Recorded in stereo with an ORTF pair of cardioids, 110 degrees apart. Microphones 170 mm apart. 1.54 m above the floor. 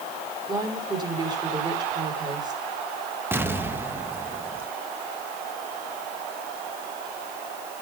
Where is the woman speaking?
25° right, 6.5 m.